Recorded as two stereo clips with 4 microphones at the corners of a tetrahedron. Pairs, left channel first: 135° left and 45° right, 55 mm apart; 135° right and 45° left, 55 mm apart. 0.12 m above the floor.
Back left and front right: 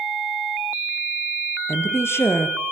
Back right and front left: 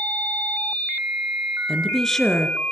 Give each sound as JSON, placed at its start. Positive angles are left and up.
{"t": 1.7, "sound": "a woman speaking", "azimuth_deg": 140, "distance_m": 2.0}